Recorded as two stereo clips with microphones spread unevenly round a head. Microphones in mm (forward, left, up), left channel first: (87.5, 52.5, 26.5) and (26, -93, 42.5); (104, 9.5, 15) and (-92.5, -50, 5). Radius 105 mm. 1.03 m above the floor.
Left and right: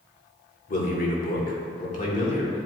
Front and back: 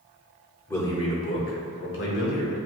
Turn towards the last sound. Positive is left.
turn(degrees=25)